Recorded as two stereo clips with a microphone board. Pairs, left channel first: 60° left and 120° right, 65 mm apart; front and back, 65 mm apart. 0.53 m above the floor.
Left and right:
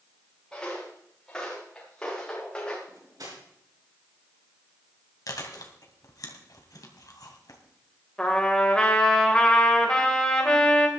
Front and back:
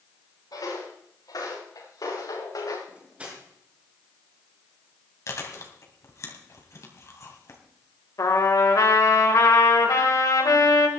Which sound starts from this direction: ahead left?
Chewing, at 5.3 s.